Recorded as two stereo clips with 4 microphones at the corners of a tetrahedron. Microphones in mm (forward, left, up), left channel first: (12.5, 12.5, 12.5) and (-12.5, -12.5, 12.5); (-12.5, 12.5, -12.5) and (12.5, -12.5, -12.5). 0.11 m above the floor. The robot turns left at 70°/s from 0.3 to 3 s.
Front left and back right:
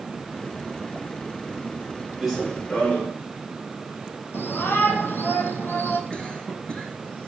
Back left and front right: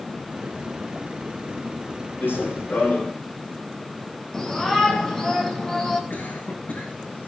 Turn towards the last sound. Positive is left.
turn(degrees=110)